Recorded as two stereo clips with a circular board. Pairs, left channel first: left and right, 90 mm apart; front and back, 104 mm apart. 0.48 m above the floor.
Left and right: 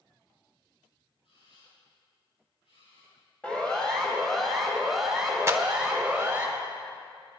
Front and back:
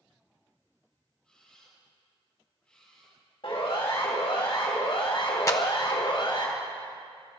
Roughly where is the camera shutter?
Left.